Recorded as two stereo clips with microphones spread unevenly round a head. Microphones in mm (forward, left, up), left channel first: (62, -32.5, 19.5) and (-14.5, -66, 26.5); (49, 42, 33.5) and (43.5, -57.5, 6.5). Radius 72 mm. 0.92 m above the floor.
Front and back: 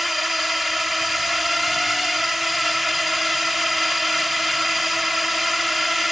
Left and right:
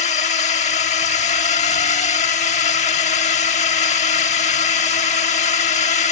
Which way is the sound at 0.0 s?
115° left.